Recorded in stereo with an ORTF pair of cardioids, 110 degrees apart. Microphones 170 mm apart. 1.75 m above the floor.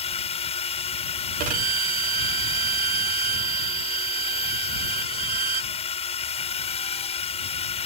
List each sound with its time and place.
0.0 s a drone: 35° left
1.4 s a violin: 55° right